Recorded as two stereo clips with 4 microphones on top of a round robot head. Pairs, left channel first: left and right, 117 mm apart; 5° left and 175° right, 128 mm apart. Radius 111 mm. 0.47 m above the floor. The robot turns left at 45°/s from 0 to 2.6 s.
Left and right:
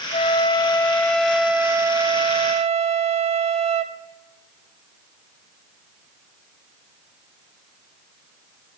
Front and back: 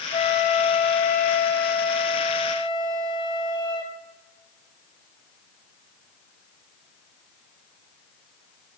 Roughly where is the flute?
Ahead left.